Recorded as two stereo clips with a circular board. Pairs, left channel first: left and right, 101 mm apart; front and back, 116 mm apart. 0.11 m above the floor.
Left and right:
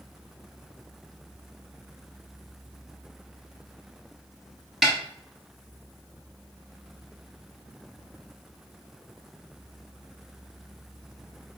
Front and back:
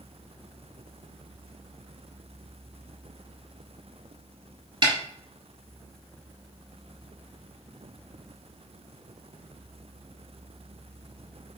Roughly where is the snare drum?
Behind.